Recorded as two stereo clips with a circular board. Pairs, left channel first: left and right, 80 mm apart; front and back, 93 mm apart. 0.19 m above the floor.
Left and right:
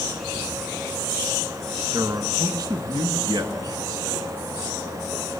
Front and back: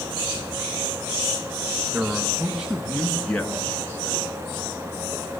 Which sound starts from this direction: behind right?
A man speaking, at 1.9 s.